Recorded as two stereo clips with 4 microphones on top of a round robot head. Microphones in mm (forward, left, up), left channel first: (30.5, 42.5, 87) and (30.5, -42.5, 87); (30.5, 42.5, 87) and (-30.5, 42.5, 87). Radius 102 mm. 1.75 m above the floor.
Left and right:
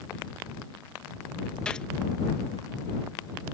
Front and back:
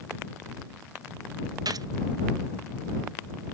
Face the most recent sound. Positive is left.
turn(degrees=175)